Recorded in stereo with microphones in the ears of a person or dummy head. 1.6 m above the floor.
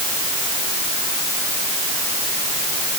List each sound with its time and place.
Only background noise.